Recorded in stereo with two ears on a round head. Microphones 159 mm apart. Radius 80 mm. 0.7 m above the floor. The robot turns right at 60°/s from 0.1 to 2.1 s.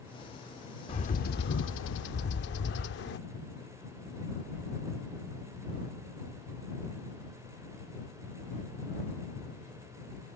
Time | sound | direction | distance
0.9 | a bird | 35° left | ?